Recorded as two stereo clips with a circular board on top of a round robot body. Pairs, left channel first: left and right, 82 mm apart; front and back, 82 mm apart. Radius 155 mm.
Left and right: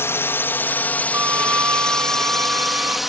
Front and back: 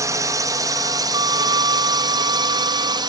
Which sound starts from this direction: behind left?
A drone, at 0.0 s.